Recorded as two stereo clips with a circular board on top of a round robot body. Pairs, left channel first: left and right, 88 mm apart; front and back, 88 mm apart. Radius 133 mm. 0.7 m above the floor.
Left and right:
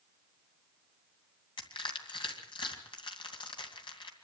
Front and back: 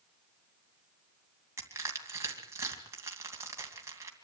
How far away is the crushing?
About 2.5 m.